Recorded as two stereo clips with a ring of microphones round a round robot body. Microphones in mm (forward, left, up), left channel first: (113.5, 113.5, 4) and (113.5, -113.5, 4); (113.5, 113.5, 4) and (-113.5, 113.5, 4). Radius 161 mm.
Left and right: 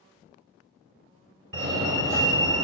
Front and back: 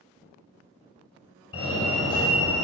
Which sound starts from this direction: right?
A fire alarm, at 1.5 s.